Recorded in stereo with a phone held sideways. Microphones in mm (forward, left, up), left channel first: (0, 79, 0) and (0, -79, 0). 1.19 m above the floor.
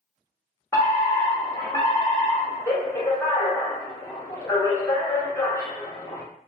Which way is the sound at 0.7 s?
15° left (ahead or behind).